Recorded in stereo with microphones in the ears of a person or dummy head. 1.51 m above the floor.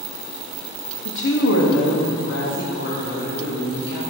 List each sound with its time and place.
1.1 s a woman speaking: 55° left (ahead or behind), 0.6 m; by 4.0 s 60° left (ahead or behind), 2.5 m